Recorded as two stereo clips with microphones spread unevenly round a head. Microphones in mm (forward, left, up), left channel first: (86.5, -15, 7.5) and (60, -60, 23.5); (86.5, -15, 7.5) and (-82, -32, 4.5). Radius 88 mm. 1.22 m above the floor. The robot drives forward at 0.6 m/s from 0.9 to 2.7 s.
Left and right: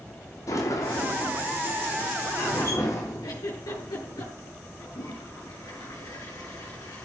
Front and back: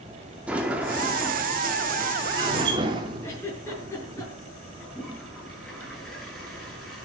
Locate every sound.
0.5 s a sliding door: 100° left, 3 m; by 4.2 s 120° left, 3.5 m
3.2 s a giggle: 85° left, 8.5 m
4.8 s a toilet flushing: 95° left, 9 m